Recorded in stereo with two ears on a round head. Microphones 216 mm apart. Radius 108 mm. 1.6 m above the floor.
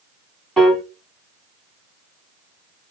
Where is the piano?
Centre (ahead or behind), 0.9 m.